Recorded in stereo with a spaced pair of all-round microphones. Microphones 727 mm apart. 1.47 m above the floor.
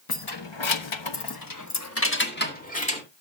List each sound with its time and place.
0.1 s keys jangling: 30° left (ahead or behind), 1.1 m; by 3.0 s 10° left (ahead or behind), 2 m